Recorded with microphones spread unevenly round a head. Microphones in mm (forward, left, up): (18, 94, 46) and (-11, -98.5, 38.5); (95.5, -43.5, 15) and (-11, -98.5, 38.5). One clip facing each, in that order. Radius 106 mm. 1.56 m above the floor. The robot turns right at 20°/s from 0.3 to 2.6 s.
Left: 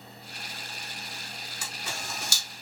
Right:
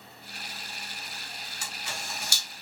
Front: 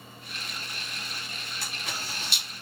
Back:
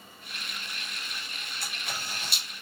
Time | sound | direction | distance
1.6 | a camera shutter | 70° left | 3.5 m